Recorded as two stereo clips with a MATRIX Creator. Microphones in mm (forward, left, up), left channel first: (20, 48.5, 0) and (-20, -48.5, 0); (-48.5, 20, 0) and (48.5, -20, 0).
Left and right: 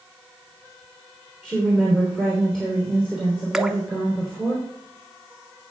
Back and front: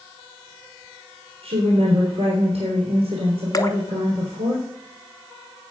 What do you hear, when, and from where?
1.4 s a woman speaking: 15° right, 3 m
3.5 s dripping: 165° left, 0.8 m